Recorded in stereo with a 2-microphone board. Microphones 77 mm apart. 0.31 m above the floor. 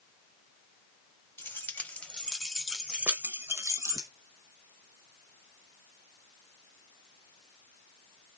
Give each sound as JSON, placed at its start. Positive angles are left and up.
{"t": 1.4, "sound": "keys jangling", "side_deg": 30, "distance_m": 1.2}